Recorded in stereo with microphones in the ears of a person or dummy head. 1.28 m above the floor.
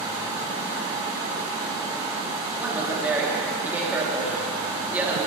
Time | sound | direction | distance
2.6 | a woman speaking | 10° right (ahead or behind) | 1.4 m